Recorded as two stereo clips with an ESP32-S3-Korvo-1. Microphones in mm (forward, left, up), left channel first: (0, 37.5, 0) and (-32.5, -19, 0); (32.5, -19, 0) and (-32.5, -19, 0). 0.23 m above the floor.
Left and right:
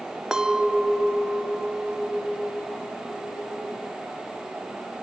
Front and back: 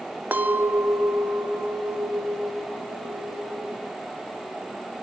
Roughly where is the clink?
Behind.